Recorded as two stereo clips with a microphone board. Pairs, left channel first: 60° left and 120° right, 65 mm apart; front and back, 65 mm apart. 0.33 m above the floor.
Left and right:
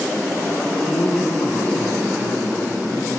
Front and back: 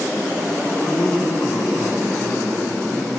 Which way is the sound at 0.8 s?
45° left.